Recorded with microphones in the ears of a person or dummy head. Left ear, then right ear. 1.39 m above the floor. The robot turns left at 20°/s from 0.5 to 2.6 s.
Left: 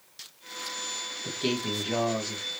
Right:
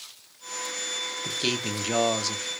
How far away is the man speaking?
About 0.7 m.